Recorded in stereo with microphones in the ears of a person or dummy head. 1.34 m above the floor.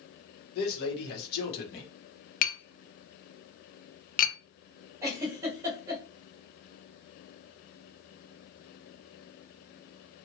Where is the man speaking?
55° left (ahead or behind), 1.3 m.